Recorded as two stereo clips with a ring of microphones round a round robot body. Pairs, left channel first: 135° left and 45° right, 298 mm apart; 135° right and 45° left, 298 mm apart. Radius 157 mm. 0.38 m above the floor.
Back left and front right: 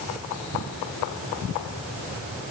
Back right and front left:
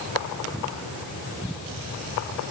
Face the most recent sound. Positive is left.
No sound to turn to.